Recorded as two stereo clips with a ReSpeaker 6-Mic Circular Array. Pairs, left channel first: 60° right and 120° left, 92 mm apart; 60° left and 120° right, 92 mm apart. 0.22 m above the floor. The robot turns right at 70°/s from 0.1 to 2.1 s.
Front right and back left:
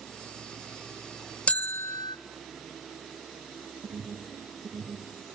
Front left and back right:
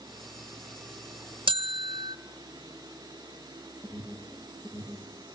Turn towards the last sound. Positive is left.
turn(degrees=135)